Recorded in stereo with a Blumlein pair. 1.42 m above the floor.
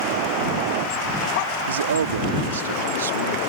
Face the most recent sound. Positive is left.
turn(degrees=-65)